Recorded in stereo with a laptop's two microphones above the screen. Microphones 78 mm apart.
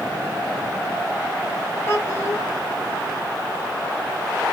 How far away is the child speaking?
About 1.5 m.